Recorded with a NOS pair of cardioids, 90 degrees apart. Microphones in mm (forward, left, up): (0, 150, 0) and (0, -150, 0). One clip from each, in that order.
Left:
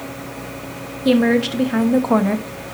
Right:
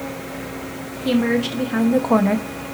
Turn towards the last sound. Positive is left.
turn(degrees=-10)